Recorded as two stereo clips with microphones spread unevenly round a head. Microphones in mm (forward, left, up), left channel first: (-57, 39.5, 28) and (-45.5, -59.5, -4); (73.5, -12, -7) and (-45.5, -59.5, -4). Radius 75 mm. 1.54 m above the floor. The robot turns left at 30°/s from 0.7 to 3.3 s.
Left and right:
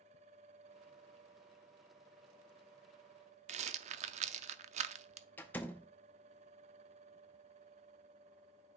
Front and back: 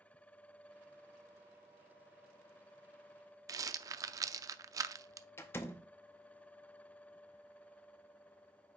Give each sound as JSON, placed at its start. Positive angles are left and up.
{"t": 3.5, "sound": "a rattle", "azimuth_deg": -95, "distance_m": 0.5}
{"t": 5.4, "sound": "a door slam", "azimuth_deg": 85, "distance_m": 0.6}